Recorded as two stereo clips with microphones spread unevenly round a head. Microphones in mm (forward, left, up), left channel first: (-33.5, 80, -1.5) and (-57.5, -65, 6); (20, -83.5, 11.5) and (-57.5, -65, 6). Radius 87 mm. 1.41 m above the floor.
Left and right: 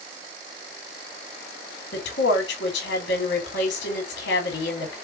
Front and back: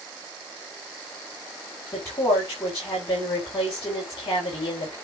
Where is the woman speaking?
60° left, 4.5 m.